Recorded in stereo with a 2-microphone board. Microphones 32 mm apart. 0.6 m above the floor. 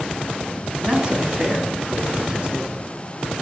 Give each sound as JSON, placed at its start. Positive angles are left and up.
{"t": 0.8, "sound": "a man speaking", "side_deg": -25, "distance_m": 5.5}